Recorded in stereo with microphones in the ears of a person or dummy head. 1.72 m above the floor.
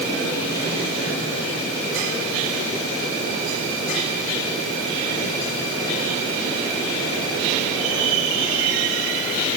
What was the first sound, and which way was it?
Only background noise.